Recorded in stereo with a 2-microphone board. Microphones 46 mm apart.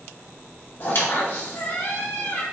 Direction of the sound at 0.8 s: 50° left (ahead or behind).